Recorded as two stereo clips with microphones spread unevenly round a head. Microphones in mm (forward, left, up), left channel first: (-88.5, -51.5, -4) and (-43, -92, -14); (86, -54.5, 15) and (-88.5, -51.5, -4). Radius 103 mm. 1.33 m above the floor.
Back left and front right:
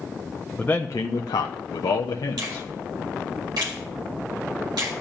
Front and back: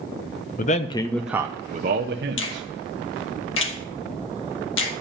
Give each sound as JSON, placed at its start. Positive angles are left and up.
{"t": 0.6, "sound": "a man speaking", "azimuth_deg": 50, "distance_m": 0.6}
{"t": 2.4, "sound": "a finger snap", "azimuth_deg": 0, "distance_m": 1.7}